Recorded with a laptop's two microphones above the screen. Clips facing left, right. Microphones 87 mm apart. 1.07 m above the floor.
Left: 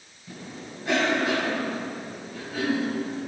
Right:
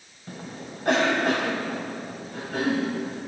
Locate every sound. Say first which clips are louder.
0.3 s a cough: right 2 dB; 60° right (ahead or behind), 7 m